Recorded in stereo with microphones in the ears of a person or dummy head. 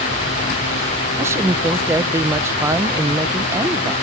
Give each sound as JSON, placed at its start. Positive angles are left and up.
{"t": 1.2, "sound": "a woman speaking", "side_deg": -10}